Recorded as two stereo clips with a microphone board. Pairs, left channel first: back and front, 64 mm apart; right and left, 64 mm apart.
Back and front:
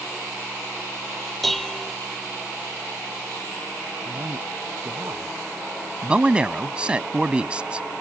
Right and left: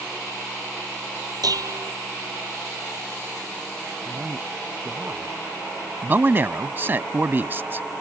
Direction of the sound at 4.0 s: 35° left.